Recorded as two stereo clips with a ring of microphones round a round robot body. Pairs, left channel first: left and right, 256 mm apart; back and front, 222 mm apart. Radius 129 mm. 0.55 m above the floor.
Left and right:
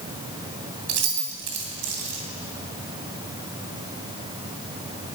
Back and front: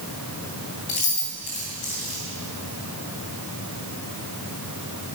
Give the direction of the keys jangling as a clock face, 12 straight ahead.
4 o'clock.